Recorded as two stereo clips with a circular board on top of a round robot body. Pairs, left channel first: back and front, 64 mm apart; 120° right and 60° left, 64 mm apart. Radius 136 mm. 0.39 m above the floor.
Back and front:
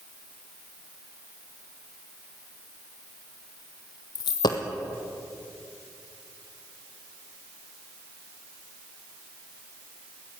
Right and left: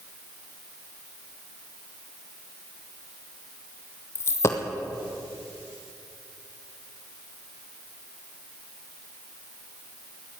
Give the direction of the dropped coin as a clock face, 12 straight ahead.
6 o'clock.